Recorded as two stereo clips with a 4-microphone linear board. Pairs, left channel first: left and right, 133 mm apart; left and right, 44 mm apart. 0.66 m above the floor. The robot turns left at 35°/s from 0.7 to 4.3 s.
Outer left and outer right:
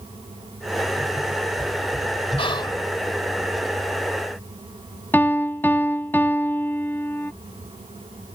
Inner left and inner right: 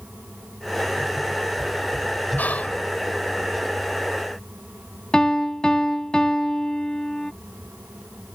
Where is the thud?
No thud in this recording.